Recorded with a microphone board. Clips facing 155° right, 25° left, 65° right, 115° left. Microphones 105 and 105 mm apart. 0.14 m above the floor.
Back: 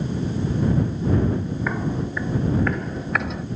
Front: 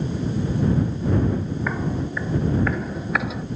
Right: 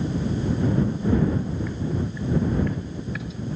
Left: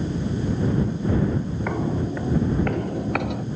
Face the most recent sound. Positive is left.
turn(degrees=110)